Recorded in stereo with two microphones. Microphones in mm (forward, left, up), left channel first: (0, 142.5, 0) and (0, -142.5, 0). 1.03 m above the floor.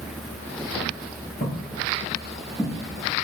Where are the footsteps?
25° left (ahead or behind), 1.3 m; by 3.2 s 25° right (ahead or behind), 1.2 m.